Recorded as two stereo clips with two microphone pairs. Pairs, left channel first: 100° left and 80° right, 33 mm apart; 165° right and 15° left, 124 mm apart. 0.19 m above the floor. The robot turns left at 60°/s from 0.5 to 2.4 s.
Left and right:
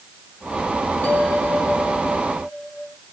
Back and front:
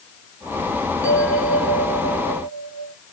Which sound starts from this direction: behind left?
A bell, at 1.0 s.